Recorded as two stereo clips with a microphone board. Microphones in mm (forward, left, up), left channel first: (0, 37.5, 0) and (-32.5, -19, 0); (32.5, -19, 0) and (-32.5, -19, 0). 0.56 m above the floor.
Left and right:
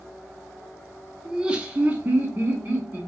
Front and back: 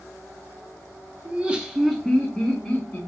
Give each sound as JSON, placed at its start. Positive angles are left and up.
{"t": 1.2, "sound": "laughter", "azimuth_deg": 170, "distance_m": 0.6}